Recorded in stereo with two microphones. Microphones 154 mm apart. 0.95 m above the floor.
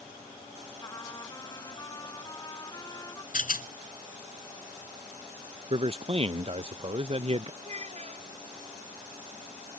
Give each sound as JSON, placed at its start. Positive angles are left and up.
{"t": 0.8, "sound": "a trumpet", "side_deg": 25}
{"t": 3.3, "sound": "a rattle", "side_deg": 70}
{"t": 5.7, "sound": "a man speaking", "side_deg": -40}
{"t": 7.6, "sound": "a child speaking", "side_deg": -50}